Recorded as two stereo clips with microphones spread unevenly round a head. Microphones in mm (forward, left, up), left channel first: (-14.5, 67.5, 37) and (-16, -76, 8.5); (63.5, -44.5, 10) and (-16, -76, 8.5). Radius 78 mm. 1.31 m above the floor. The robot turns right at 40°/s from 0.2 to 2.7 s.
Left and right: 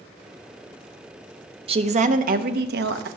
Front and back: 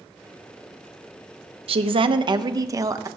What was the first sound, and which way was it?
A woman speaking, 145° right.